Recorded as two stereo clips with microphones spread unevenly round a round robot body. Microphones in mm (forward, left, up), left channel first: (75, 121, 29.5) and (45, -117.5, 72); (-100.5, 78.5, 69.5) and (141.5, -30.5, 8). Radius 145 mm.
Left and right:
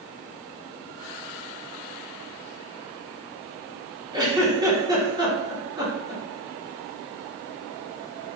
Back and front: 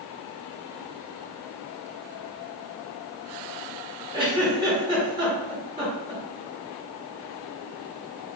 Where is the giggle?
20° right, 1.1 m.